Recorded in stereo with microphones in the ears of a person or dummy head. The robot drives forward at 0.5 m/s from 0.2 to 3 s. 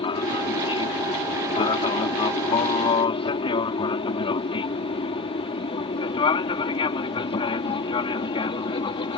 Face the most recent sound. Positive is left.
turn(degrees=30)  # may be behind; listen again after turning